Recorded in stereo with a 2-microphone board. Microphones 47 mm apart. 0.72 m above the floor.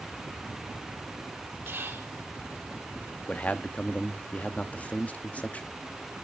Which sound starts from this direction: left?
A man speaking, at 3.3 s.